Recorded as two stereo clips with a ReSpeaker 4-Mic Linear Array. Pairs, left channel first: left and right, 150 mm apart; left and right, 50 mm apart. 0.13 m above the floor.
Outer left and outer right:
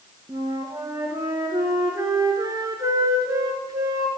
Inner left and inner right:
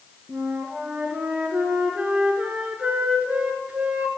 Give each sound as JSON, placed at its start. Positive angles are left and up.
{"t": 0.3, "sound": "a flute", "side_deg": -25, "distance_m": 1.8}